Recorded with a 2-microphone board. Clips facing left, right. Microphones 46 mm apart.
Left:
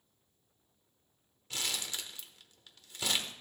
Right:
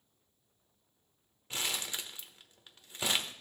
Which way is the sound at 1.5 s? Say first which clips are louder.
Right 1 dB; 20° right (ahead or behind).